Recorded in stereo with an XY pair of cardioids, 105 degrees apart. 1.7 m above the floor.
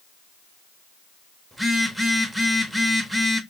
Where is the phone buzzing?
10° right, 0.8 m.